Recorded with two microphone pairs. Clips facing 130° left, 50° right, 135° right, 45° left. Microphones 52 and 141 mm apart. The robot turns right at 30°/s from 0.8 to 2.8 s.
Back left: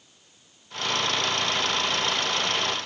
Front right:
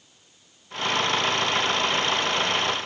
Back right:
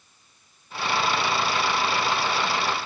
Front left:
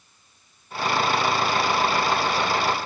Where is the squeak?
No squeak in this recording.